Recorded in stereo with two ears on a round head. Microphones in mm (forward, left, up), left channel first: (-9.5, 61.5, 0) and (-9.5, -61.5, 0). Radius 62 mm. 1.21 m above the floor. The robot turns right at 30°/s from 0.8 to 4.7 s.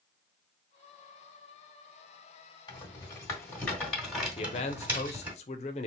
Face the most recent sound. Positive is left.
turn(degrees=50)  # may be behind; listen again after turning